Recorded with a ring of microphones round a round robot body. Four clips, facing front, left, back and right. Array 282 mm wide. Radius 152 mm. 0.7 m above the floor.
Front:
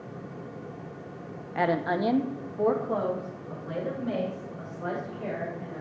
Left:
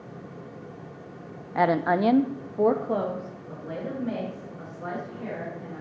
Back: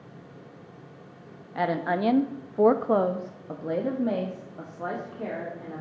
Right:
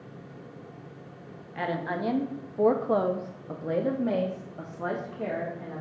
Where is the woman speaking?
85° left, 0.7 m; by 5.8 s 135° right, 1.9 m.